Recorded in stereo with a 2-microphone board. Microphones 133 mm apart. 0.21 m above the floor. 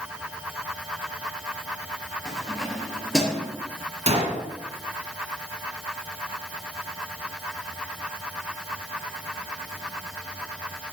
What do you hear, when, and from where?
2.2 s keys jangling: centre (ahead or behind), 3 m
4.1 s a gunshot: 50° right (ahead or behind), 1.8 m